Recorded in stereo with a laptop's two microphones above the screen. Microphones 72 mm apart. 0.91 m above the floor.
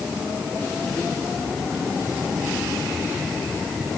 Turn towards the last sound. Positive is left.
No sound to turn to.